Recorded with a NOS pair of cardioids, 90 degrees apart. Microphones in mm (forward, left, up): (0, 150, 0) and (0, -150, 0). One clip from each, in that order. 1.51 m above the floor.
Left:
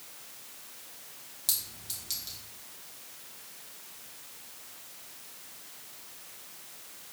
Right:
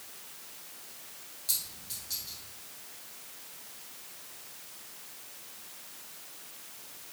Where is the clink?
65° left, 1.9 m.